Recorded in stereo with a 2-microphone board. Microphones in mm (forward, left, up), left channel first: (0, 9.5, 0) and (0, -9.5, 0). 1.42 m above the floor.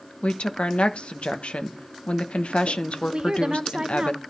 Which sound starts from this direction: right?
A woman speaking, at 3.1 s.